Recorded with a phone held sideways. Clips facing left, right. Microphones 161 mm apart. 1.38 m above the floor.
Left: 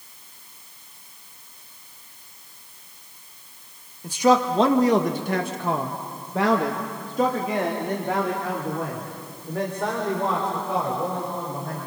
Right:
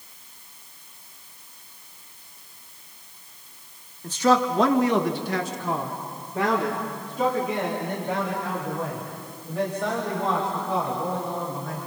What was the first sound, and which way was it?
A man speaking, 10° left (ahead or behind).